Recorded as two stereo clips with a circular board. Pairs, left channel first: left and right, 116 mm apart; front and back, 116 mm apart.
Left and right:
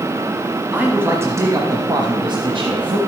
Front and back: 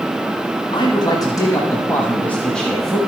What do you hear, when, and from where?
0.7 s a man speaking: 20° right, 1.3 m; by 3.0 s 90° right, 1.5 m